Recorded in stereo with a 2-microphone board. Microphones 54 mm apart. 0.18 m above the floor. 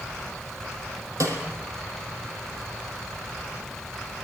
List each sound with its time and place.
1.2 s a snare drum: 80° right, 5 m